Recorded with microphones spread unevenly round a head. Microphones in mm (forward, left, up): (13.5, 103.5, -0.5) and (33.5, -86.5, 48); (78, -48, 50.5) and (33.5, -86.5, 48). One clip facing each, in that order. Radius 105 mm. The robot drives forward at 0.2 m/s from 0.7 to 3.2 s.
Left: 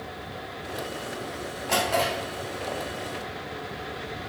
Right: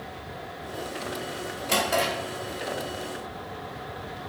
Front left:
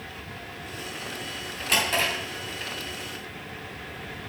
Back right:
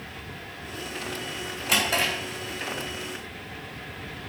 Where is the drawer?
155° right, 4.5 m.